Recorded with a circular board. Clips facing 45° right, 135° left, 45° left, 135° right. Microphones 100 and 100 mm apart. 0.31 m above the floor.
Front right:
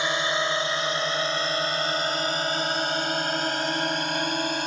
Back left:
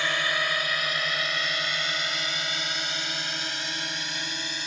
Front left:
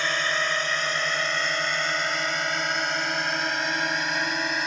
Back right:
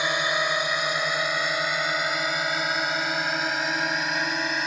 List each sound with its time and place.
0.0 s a drone: 80° right; by 4.7 s 45° right